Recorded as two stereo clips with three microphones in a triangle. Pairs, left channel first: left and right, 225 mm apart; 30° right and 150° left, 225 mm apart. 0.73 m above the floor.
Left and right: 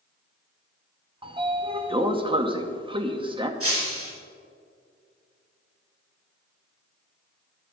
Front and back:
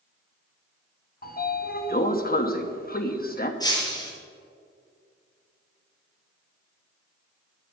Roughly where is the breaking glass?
Right.